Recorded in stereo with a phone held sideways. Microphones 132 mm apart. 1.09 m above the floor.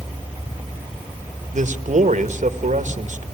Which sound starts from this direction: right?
A man speaking, at 1.5 s.